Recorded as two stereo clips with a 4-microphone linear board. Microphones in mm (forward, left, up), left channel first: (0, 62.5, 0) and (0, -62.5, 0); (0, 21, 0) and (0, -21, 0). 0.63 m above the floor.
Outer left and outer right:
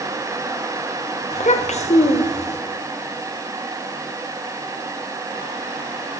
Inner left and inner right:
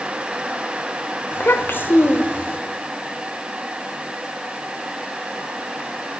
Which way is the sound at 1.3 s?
65° left (ahead or behind).